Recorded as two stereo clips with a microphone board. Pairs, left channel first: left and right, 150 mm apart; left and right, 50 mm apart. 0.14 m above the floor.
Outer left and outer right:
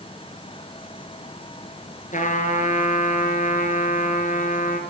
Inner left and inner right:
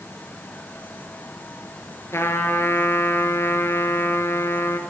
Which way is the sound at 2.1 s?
60° left (ahead or behind).